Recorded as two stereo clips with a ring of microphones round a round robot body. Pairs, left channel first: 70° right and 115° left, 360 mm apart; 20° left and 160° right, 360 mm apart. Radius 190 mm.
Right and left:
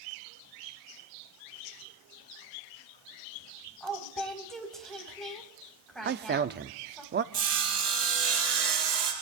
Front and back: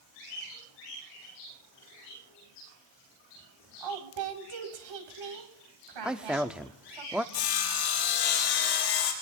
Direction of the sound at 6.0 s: 115° left.